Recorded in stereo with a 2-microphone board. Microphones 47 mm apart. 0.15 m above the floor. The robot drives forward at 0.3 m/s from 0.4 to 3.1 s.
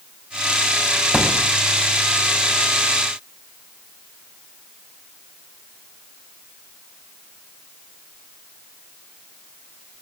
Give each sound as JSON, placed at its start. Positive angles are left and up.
{"t": 1.1, "sound": "a thud", "side_deg": -15, "distance_m": 3.0}